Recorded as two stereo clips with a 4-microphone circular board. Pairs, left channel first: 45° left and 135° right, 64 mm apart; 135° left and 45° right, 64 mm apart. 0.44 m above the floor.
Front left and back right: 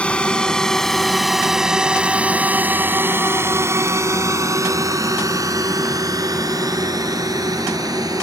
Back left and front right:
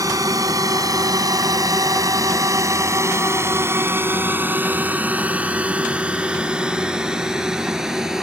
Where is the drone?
25° right; by 8.2 s 125° right.